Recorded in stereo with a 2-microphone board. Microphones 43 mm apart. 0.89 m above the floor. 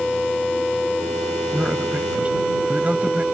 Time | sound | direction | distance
1.5 | a man speaking | 35° right (ahead or behind) | ?